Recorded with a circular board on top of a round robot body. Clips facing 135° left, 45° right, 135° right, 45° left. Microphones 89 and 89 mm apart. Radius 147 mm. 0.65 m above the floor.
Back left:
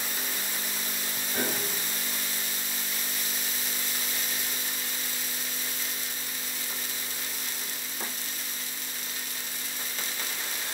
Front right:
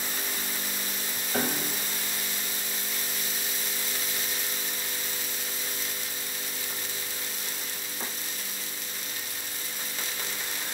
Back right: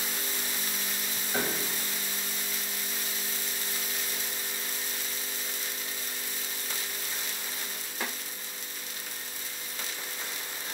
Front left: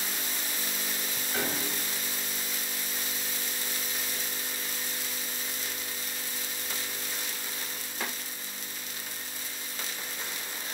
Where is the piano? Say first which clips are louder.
Front right 2 dB, back right 1 dB; 65° right, 2.5 m.